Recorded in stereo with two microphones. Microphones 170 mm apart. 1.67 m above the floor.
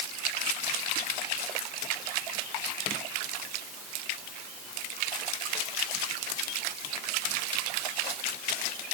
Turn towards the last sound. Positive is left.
No sound to turn to.